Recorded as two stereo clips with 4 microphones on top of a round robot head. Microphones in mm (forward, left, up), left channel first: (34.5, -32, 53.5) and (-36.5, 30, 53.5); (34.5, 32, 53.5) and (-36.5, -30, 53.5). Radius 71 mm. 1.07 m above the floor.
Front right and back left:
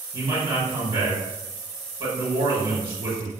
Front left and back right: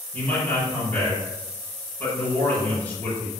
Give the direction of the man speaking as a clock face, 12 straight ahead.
8 o'clock.